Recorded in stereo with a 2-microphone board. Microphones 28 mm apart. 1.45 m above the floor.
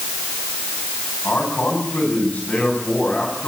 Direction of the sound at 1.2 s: 85° left.